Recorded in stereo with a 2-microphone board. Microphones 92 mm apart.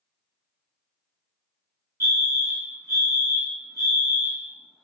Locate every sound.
2.0 s a fire alarm: 35° right (ahead or behind), 1.5 m